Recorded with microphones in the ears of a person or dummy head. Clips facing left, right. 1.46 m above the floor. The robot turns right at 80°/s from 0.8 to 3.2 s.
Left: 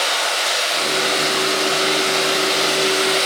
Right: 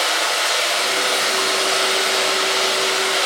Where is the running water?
130° right, 1.5 m; by 3.3 s 60° left, 1.5 m.